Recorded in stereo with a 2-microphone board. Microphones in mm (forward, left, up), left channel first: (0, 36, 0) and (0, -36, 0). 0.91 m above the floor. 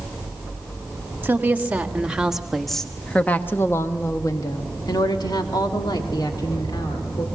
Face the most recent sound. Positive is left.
turn(degrees=80)